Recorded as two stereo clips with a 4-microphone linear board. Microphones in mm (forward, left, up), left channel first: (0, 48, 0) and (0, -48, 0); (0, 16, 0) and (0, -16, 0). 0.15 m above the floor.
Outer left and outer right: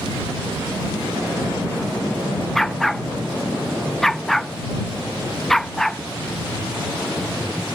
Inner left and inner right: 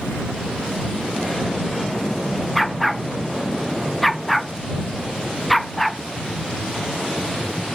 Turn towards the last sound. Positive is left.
turn(degrees=5)  # may be behind; listen again after turning